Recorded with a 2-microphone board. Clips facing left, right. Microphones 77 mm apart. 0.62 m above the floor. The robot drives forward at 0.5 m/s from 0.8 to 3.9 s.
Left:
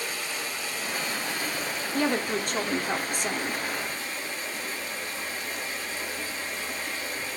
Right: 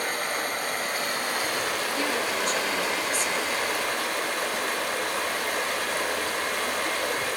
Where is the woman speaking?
55° left (ahead or behind), 1.7 m.